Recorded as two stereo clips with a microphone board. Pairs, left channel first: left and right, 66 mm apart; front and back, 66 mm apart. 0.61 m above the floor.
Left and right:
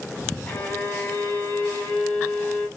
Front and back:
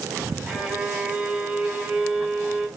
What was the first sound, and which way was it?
A violin, 130° left.